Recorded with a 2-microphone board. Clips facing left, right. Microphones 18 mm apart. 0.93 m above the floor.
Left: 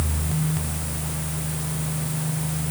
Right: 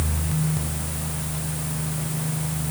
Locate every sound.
Only background noise.